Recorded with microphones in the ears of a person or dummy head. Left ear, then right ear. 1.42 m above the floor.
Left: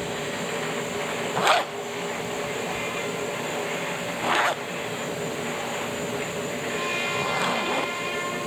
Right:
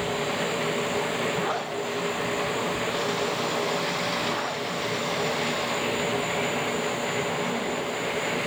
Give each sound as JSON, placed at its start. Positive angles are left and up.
{"t": 0.0, "sound": "a machine running", "side_deg": -5, "distance_m": 0.9}
{"t": 1.4, "sound": "a zipper", "side_deg": 40, "distance_m": 0.7}